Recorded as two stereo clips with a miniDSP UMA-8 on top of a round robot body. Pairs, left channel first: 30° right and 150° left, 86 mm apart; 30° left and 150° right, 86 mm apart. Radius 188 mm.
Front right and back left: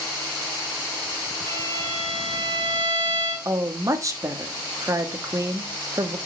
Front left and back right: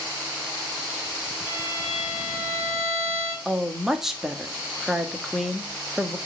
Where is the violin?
145° left, 3 m.